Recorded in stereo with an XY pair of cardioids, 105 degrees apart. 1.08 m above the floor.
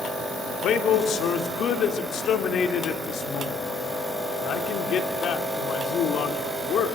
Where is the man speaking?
65° left, 3 m.